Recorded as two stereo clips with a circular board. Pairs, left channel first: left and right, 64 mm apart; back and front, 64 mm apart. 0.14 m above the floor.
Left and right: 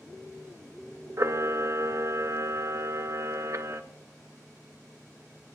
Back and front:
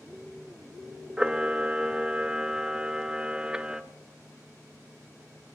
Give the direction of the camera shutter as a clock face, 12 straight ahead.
2 o'clock.